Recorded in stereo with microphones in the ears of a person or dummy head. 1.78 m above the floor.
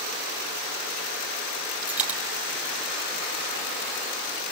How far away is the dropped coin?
About 3 m.